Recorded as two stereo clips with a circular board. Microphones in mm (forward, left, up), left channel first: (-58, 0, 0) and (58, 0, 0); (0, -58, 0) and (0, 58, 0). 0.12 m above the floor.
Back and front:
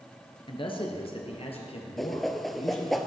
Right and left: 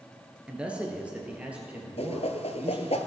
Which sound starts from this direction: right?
A whoosh, at 2.0 s.